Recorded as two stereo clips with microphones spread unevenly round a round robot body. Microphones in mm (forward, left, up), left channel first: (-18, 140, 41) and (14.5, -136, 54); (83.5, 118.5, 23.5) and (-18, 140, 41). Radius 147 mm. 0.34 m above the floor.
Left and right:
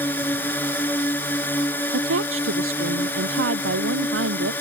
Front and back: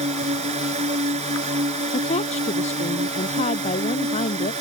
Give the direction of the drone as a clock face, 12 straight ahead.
6 o'clock.